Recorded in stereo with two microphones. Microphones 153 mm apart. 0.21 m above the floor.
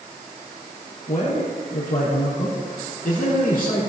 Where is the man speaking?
70° left (ahead or behind), 5 m.